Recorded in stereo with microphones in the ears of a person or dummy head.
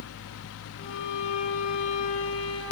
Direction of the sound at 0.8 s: 65° left (ahead or behind).